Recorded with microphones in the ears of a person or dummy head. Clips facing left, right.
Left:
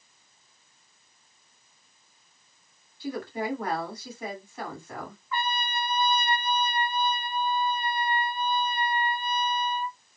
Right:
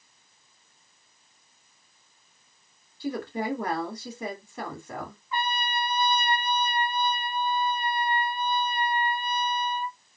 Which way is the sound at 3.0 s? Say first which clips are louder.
Right 1 dB; 55° right (ahead or behind).